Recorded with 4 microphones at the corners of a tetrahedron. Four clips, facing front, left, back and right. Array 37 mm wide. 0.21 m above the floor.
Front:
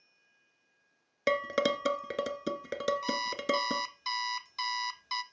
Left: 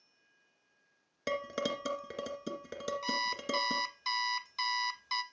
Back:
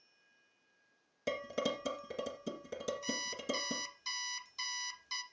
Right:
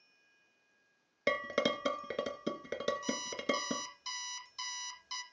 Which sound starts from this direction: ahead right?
Dishes clattering, at 1.3 s.